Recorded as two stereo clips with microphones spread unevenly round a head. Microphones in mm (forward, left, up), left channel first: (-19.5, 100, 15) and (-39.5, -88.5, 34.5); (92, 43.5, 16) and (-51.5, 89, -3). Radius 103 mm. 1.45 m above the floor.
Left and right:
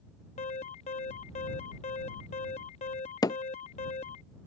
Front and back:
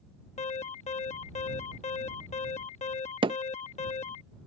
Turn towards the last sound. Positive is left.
turn(degrees=145)